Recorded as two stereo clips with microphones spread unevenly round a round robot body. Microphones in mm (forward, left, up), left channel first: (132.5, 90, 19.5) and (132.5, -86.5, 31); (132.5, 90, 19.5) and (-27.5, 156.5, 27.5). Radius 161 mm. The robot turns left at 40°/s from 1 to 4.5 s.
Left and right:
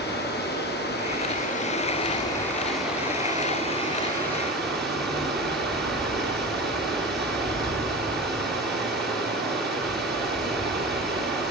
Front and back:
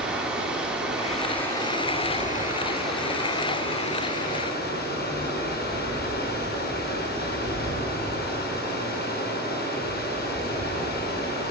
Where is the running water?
70° left, 4.5 m; by 11.5 s 70° right, 4.5 m.